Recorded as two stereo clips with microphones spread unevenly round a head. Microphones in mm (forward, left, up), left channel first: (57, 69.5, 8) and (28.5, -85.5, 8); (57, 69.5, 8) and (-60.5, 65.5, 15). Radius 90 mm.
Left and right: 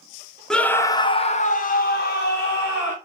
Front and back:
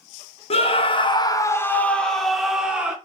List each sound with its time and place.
0.5 s a scream: 5° right, 0.7 m; by 3.0 s 100° left, 1.2 m